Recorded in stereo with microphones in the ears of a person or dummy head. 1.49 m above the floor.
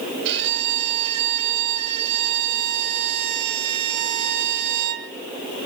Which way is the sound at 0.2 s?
60° right (ahead or behind).